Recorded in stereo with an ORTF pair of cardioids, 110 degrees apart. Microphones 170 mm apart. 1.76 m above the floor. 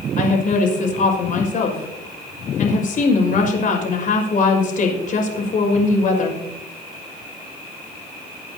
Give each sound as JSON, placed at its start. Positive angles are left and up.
{"t": 0.2, "sound": "a woman speaking", "azimuth_deg": 50, "distance_m": 5.5}